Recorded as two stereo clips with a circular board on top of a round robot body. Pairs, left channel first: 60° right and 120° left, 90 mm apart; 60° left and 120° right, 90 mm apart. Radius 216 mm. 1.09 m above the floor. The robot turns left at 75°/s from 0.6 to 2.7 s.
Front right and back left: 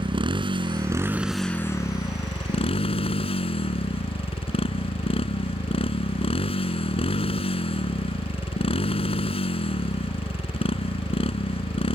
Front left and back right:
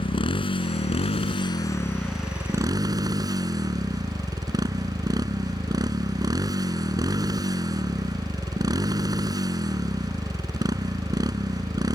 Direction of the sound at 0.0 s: 85° left.